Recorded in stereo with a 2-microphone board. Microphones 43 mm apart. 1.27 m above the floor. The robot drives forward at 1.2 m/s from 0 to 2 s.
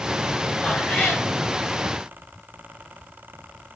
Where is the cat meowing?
30° left (ahead or behind), 8 m; by 1.2 s 35° left (ahead or behind), 7 m.